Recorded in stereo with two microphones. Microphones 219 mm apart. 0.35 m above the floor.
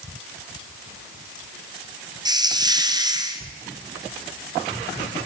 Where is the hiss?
20° right (ahead or behind), 2.5 m.